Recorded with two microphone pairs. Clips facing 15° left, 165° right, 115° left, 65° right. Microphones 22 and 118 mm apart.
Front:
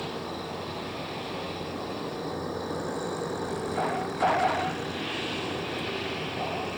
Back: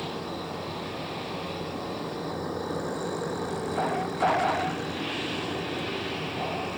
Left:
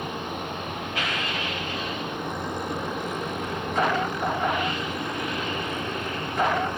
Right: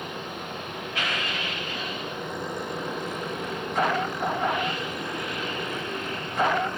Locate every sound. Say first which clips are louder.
0.0 s an insect: back 1 dB, left 3 dB; 100° left, 2.5 m